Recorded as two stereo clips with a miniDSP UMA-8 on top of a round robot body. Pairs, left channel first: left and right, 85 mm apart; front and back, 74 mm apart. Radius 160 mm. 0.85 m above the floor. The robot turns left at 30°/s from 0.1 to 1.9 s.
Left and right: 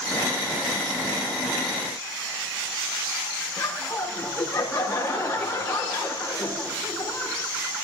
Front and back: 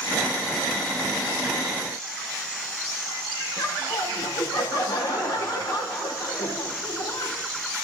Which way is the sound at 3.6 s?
30° left.